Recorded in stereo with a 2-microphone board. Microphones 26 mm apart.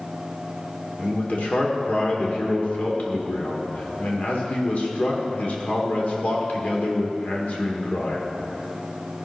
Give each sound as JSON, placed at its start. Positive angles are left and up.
{"t": 1.0, "sound": "a man speaking", "side_deg": 60, "distance_m": 2.0}